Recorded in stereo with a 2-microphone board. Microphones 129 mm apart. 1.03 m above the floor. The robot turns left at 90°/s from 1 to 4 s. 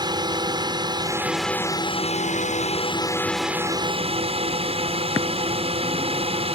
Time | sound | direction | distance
0.0 | a drone | 145° right | ?